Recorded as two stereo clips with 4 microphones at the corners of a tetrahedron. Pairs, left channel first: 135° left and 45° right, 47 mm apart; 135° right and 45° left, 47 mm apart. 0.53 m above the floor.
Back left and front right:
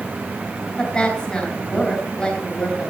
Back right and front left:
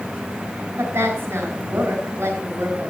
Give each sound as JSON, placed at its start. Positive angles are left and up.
{"t": 0.8, "sound": "a woman speaking", "azimuth_deg": 55, "distance_m": 3.0}